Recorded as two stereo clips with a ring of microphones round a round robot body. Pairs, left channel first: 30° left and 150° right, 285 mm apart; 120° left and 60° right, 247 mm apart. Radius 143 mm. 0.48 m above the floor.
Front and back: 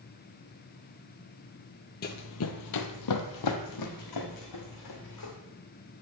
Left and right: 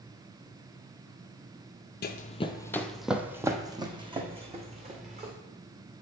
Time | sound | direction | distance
2.0 | running footsteps | 80° left | 0.7 m